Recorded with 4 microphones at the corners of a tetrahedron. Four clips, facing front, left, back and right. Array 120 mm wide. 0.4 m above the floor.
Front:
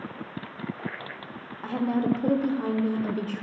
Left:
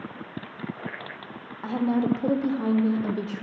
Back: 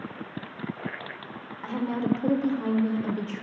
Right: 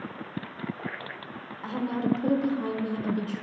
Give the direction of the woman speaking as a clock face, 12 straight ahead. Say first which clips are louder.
Left 4 dB, front 2 dB; 10 o'clock.